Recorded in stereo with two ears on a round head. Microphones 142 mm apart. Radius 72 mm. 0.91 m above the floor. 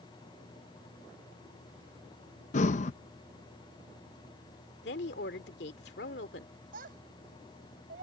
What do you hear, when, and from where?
2.5 s breathing: 45° left (ahead or behind)
4.8 s a woman speaking: 70° left (ahead or behind)
6.7 s a child speaking: 60° right (ahead or behind)